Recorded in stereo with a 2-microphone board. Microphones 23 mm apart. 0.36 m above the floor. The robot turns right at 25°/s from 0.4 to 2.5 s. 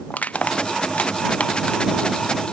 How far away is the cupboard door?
I don't hear a cupboard door.